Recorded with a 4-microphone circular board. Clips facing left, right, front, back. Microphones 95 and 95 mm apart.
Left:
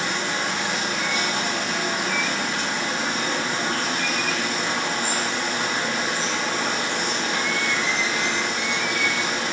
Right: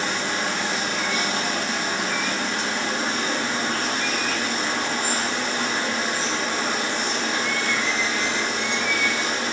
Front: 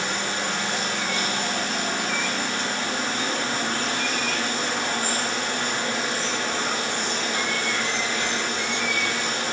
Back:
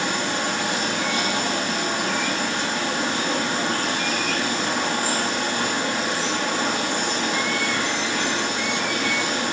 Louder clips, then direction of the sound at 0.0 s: Even, back 3 dB; 175° left.